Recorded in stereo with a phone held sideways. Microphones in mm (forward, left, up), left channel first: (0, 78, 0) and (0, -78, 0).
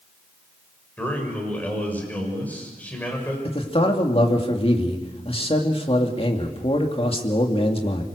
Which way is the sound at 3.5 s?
40° left (ahead or behind).